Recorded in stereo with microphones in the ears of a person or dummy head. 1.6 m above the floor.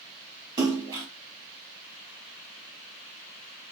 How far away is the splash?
About 2.5 m.